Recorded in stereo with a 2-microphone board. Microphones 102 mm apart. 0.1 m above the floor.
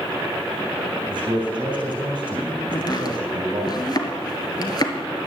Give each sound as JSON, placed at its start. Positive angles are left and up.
{"t": 1.1, "sound": "a man speaking", "side_deg": -55, "distance_m": 3.0}
{"t": 2.7, "sound": "chopping", "side_deg": 45, "distance_m": 1.4}